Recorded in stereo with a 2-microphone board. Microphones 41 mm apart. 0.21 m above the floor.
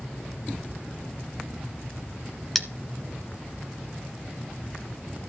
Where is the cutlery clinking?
Centre (ahead or behind), 1.3 m.